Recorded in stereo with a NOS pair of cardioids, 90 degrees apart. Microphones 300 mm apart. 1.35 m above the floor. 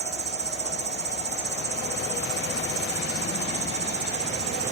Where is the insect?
35° right.